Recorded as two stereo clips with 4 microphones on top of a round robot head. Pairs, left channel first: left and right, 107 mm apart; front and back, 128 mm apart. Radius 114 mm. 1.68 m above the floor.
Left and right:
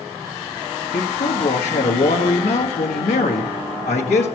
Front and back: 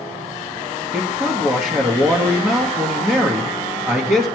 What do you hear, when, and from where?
0.9 s a man speaking: 110° left, 1.4 m